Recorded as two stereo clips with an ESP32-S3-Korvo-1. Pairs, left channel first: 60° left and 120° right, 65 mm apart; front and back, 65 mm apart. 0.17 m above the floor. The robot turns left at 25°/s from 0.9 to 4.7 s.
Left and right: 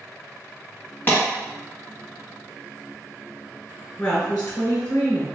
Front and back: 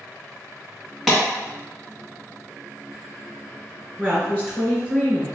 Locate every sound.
1.1 s a clap: 85° left, 1.1 m
4.0 s a woman speaking: 125° left, 1.1 m; by 5.3 s 110° left, 1.1 m